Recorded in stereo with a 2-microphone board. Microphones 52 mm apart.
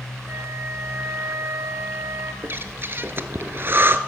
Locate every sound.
0.3 s a flute: 50° right (ahead or behind), 1.2 m
2.4 s breathing: 45° right (ahead or behind), 0.7 m